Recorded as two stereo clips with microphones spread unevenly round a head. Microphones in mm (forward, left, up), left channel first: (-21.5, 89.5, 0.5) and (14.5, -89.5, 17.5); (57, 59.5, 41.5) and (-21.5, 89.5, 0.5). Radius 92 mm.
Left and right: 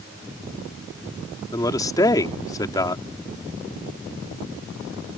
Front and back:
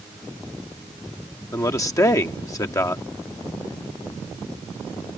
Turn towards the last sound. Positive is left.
turn(degrees=25)